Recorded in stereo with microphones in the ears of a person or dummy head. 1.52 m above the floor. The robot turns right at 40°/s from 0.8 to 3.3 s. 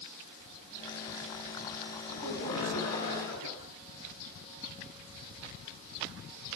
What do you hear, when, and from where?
2.1 s laughter: 55° left, 5.5 m; by 3.7 s 100° left, 5.5 m